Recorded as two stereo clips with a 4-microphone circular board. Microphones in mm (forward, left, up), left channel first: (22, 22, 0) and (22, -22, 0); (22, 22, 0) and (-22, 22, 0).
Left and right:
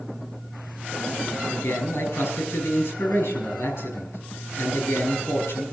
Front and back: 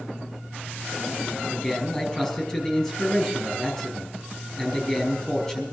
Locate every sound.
1.5 s a man speaking: 70° left, 5.5 m